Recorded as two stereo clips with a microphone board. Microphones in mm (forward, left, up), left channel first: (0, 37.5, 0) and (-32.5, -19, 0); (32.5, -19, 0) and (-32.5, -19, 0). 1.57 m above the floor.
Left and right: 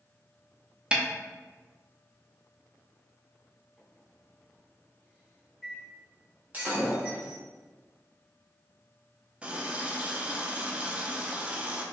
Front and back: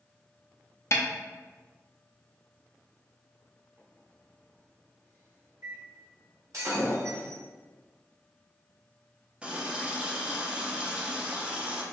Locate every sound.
0.9 s a snare drum: 45° right, 0.6 m
3.8 s a microwave: 150° left, 1.6 m
6.5 s breaking glass: straight behind, 1.3 m
9.4 s a running tap: 145° right, 0.6 m